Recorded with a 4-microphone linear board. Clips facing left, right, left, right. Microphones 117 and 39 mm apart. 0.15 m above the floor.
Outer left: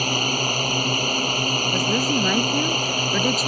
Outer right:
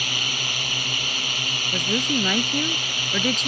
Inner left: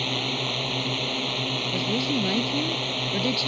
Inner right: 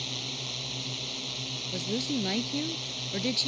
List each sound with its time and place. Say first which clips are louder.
0.0 s a drone: outer left 9 dB, inner left 9 dB; 45° left (ahead or behind)
1.7 s a woman speaking: outer left 1 dB, inner left 4 dB; 10° left (ahead or behind)